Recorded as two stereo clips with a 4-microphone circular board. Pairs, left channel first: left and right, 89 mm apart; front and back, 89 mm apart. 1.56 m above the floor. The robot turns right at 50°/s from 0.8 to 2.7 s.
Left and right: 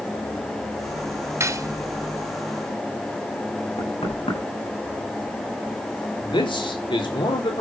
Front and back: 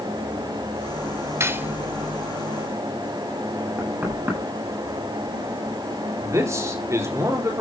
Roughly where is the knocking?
Left.